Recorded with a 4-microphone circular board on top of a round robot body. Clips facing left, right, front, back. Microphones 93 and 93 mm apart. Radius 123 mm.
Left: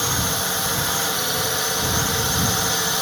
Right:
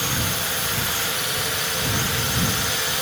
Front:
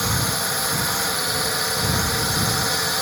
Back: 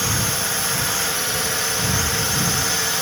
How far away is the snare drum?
I don't hear a snare drum.